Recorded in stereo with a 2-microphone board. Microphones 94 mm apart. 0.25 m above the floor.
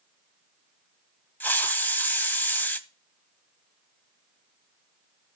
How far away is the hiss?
About 0.8 m.